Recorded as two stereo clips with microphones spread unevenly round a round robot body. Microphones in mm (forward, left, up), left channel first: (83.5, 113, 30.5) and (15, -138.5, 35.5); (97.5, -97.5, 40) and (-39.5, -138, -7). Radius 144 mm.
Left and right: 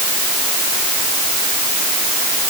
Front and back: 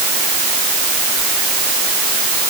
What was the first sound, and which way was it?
Only background noise.